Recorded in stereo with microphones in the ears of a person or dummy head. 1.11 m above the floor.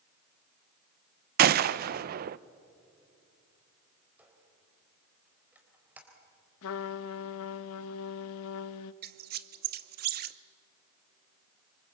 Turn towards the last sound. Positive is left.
turn(degrees=-45)  # may be behind; listen again after turning